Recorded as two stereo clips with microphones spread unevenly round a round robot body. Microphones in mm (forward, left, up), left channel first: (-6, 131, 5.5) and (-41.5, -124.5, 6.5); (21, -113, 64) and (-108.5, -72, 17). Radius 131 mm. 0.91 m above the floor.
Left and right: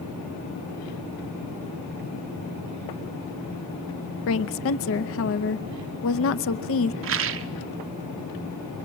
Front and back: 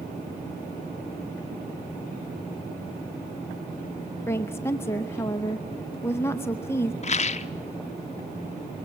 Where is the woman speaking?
70° left, 0.7 m.